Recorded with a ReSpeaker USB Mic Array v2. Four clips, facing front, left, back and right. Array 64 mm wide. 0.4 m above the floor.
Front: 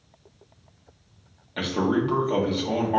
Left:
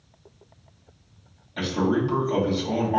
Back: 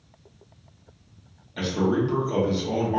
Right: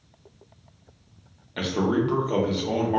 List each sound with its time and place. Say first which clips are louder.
1.6 s a man speaking: even, even; 45° right, 1.0 m